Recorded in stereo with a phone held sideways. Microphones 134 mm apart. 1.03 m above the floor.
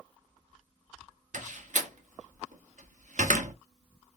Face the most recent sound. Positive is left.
turn(degrees=-70)  # may be behind; listen again after turning